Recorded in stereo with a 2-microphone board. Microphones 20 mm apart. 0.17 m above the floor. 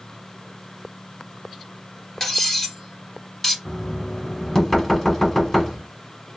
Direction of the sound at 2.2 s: 20° left (ahead or behind).